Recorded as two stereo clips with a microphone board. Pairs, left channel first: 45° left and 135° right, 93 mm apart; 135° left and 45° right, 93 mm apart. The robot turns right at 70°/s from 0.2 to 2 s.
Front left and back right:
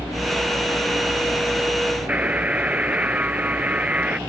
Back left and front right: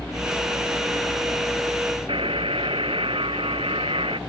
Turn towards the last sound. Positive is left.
turn(degrees=-60)